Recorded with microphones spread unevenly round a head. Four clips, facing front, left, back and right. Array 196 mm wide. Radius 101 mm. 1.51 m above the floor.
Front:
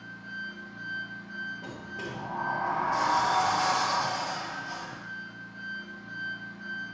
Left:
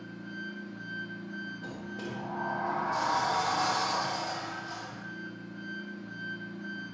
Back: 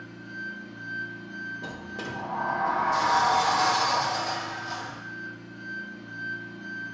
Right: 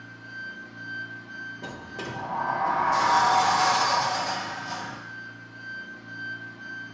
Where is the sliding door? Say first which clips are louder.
Right 2 dB, back 2 dB; 130° right, 1.1 m.